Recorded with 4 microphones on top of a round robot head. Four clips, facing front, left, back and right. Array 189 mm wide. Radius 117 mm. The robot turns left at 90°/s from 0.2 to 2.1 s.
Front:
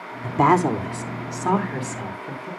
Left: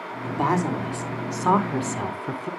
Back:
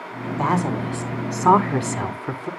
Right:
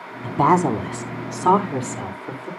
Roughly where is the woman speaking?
Ahead right.